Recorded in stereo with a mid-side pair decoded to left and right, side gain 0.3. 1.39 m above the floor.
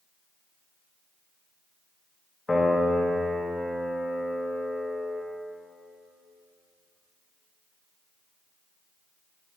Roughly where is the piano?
Ahead left.